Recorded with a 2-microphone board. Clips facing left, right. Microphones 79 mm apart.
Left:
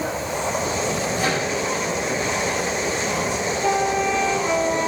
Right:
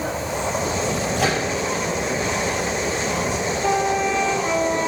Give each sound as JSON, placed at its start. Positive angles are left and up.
{"t": 1.2, "sound": "a microwave", "side_deg": -75, "distance_m": 4.0}